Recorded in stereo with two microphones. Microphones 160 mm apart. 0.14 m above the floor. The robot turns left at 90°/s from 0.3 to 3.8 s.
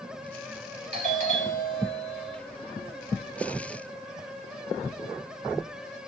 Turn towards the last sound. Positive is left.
turn(degrees=40)